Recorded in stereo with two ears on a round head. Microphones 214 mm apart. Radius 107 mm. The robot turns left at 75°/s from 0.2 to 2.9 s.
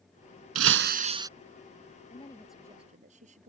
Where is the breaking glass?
110° right; by 1.3 s 165° right.